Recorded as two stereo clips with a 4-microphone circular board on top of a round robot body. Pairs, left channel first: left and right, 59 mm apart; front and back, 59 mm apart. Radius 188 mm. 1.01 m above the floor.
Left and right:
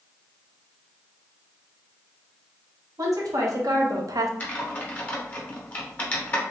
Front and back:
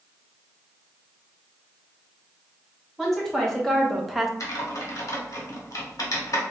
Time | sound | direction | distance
3.0 | a woman speaking | 85° right | 1.8 m
4.4 | typing on a keyboard | 25° left | 1.5 m